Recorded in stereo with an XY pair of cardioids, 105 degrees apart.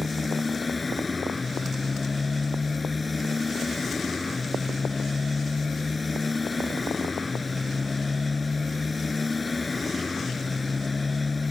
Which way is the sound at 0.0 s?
20° left.